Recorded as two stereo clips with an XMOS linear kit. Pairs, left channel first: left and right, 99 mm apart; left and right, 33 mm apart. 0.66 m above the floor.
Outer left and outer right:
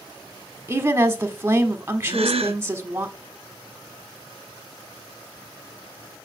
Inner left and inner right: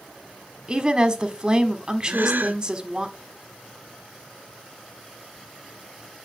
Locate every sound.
0.7 s a woman speaking: 25° right (ahead or behind), 1.3 m
2.1 s a gasp: 85° right, 0.6 m